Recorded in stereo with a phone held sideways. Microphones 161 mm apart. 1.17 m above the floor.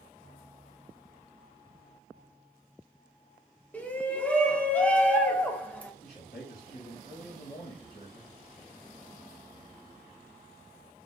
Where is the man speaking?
70° left (ahead or behind), 0.9 m.